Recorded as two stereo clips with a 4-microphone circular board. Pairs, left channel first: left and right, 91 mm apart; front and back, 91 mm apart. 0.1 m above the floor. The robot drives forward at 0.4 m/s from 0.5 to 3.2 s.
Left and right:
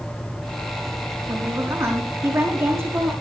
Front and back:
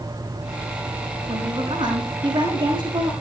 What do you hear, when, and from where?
1.3 s a woman speaking: 150° right, 6 m